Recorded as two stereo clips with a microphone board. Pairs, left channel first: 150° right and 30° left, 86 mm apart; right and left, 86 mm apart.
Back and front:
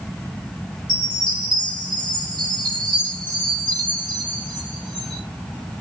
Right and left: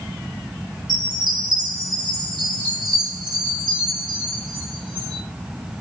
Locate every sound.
0.9 s a chime: 60° left, 5.5 m